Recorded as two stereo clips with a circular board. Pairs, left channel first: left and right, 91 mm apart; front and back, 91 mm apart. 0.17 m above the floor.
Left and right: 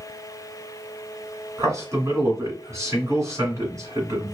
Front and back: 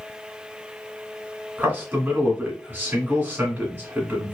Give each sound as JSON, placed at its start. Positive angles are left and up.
{"t": 1.6, "sound": "a man speaking", "azimuth_deg": -120, "distance_m": 1.7}